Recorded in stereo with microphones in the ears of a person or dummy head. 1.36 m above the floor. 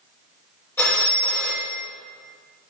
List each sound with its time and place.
0.8 s a phone ringing: 15° left (ahead or behind), 1.3 m